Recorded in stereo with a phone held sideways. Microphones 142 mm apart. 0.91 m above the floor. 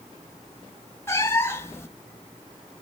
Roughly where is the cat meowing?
Centre.